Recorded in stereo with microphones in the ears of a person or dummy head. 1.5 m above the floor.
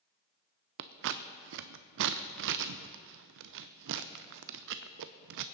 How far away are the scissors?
About 0.5 m.